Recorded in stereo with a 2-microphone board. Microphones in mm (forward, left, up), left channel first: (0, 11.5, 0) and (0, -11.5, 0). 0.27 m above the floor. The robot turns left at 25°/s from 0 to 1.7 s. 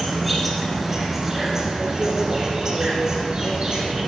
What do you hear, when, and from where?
0.0 s an insect: 10° left, 1.9 m; by 4.1 s 35° right, 1.9 m